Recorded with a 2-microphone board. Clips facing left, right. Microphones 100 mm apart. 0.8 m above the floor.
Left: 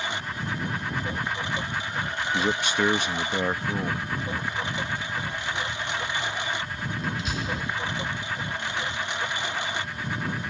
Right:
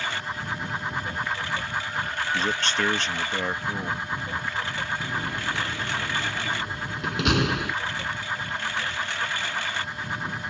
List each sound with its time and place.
0.0 s a lawn mower: 20° left (ahead or behind)
2.3 s a man speaking: 15° left (ahead or behind)
5.0 s a door slam: 70° right (ahead or behind)